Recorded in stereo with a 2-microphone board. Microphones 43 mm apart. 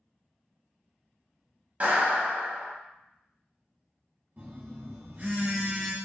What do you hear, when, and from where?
1.8 s a clap: 35° right (ahead or behind), 1.0 m
4.4 s a phone buzzing: 50° right (ahead or behind), 1.0 m